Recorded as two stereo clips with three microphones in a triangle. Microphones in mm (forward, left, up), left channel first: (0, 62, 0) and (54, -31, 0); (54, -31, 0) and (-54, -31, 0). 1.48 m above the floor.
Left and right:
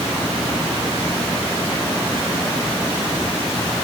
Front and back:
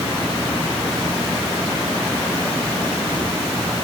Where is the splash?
No splash in this recording.